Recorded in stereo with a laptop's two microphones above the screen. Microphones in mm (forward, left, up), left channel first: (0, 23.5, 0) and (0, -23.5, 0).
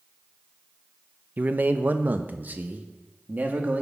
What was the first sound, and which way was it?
A man speaking, 40° right (ahead or behind).